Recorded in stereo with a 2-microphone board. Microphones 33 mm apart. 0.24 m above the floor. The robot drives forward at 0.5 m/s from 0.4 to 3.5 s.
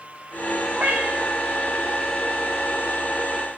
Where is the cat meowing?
85° right, 4.5 m; by 1.4 s 80° right, 4.5 m.